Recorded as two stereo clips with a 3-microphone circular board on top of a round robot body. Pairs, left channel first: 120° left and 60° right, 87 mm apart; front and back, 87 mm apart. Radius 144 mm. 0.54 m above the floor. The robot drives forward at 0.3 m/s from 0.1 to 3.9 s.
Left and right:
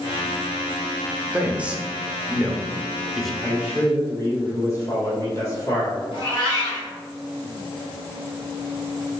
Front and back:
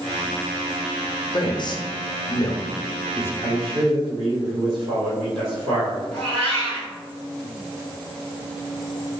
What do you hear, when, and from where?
1.3 s a man speaking: 15° left, 1.1 m; by 3.3 s 40° left, 0.7 m
3.4 s a man speaking: 175° left, 1.9 m
6.1 s a cat meowing: 160° left, 1.4 m